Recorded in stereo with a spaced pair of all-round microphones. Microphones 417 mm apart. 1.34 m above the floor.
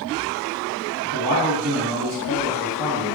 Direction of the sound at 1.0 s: 70° right (ahead or behind).